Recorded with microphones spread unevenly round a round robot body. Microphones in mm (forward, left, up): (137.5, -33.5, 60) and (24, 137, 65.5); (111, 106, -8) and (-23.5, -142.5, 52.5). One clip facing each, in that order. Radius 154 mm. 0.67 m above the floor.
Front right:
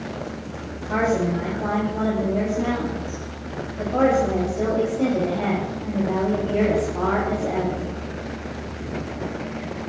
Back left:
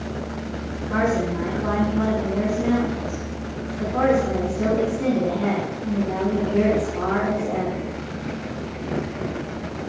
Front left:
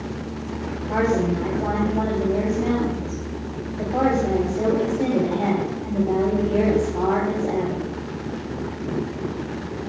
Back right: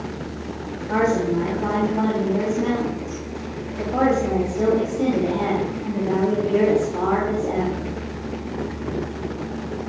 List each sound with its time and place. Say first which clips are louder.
0.8 s a woman speaking: front right 1 dB, back right 1 dB; 65° right, 3.5 m